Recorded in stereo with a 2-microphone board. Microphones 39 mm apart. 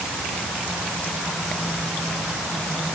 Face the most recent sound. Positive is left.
No sound to turn to.